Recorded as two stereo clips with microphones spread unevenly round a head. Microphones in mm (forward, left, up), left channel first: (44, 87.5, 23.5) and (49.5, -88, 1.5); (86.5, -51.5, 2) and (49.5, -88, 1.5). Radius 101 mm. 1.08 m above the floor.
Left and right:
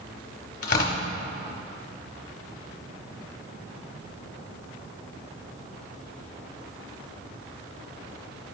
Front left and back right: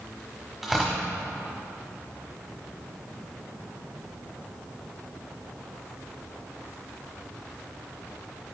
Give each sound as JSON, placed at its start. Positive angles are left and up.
{"t": 0.6, "sound": "tearing paper", "azimuth_deg": 140, "distance_m": 1.1}